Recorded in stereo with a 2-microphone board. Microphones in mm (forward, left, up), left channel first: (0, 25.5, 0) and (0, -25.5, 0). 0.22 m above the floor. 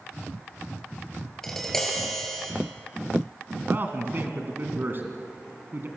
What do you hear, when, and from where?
1.4 s tapping: 10° left (ahead or behind), 4.5 m
3.7 s a man speaking: 45° right (ahead or behind), 2.5 m